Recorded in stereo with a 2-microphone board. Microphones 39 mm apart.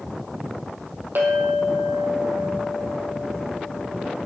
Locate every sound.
1.1 s a clink: 65° right (ahead or behind), 3.5 m